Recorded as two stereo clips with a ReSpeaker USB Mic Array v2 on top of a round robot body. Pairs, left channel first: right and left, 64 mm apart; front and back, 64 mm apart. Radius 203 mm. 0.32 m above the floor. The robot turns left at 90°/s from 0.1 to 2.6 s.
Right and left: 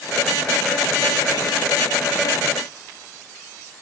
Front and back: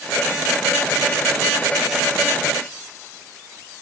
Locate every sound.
Only background noise.